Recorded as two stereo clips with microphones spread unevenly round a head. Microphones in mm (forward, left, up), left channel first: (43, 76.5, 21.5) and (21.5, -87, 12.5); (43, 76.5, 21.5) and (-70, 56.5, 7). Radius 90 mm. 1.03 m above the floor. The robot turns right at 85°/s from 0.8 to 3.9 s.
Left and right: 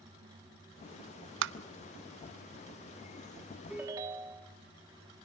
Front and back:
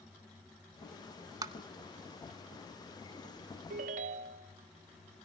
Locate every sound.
1.4 s tapping: 105° right, 0.6 m; by 1.5 s 90° right, 0.6 m
3.7 s a ringtone: 170° left, 0.9 m; by 4.5 s 170° right, 0.9 m